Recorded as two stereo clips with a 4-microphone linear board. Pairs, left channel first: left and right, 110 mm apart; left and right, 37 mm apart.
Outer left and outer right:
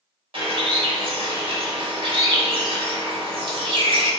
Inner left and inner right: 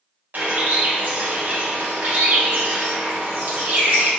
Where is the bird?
55° right (ahead or behind), 0.9 m.